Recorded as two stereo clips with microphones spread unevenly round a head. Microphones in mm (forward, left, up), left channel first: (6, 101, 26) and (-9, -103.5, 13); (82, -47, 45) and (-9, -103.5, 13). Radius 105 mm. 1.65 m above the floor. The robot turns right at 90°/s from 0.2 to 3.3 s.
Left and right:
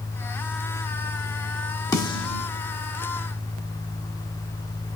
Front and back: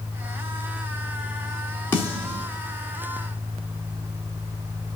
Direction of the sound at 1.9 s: 30° left.